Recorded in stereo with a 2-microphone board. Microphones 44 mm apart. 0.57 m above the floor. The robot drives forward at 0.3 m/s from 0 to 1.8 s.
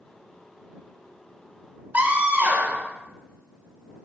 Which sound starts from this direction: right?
A scream, at 1.9 s.